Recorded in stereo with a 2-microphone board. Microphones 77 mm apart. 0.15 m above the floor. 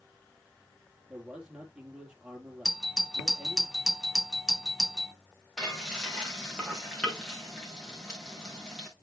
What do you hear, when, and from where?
1.1 s a man speaking: 15° right (ahead or behind), 4 m
2.6 s a doorbell: centre (ahead or behind), 1.4 m
5.6 s frying: centre (ahead or behind), 5.5 m